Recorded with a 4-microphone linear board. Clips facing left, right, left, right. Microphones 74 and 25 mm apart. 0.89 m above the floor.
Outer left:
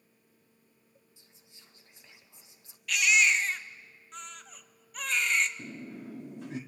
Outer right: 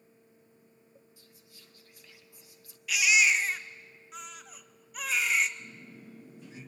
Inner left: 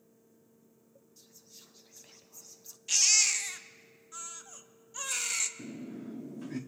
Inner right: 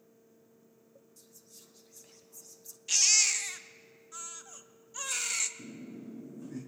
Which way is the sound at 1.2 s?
20° left (ahead or behind).